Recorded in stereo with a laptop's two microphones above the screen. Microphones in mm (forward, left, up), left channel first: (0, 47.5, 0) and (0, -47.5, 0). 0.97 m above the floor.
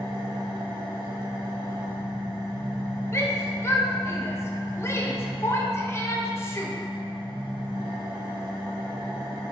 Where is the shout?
30° left (ahead or behind), 0.6 m.